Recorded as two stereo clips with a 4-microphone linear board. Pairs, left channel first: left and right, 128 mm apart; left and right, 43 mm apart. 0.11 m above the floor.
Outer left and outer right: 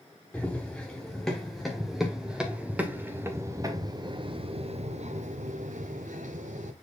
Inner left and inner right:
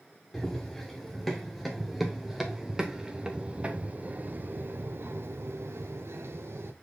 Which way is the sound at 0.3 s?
10° left (ahead or behind).